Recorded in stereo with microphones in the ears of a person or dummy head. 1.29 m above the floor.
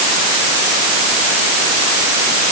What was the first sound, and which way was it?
Only background noise.